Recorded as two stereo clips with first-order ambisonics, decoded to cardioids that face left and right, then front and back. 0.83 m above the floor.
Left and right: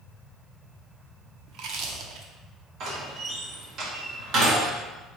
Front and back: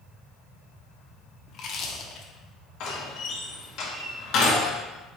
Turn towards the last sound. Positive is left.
turn(degrees=-40)